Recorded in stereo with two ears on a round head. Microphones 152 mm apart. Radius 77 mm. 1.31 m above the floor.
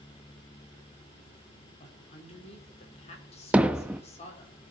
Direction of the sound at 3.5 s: 10° right (ahead or behind).